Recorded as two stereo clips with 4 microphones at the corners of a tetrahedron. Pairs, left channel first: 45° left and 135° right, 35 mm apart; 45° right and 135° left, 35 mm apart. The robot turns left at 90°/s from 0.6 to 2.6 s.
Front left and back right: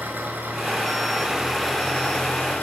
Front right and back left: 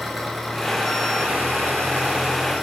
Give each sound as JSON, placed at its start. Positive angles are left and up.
{"t": 0.0, "sound": "an engine running", "azimuth_deg": -135, "distance_m": 5.0}